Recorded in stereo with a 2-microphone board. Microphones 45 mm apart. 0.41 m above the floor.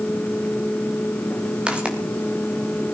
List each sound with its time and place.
1.7 s footsteps: 25° right (ahead or behind), 3.5 m